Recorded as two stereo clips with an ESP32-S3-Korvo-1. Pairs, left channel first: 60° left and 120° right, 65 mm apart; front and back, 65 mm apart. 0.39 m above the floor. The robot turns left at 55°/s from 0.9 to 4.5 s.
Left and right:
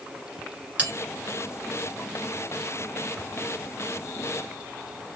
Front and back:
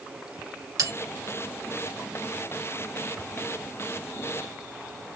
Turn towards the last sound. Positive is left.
turn(degrees=-25)